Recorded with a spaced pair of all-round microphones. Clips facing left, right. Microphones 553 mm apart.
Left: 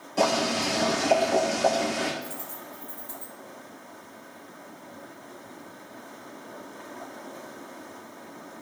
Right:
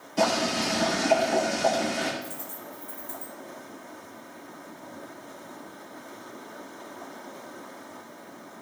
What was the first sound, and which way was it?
Boiling, 10° right (ahead or behind).